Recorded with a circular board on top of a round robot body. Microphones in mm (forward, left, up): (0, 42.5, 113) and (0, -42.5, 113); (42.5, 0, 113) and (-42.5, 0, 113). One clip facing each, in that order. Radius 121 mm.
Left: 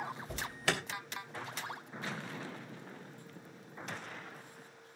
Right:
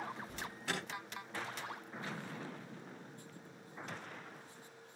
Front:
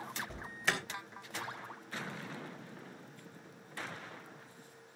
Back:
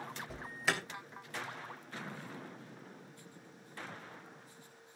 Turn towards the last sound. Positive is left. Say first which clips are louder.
# left 6 dB, back 1 dB
turn(degrees=95)